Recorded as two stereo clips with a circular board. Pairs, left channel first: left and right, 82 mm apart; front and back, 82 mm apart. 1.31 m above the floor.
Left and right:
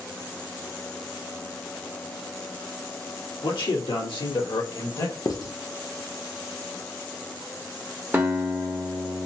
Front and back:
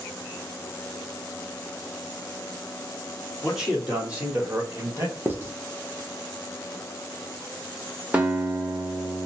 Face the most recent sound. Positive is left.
turn(degrees=-130)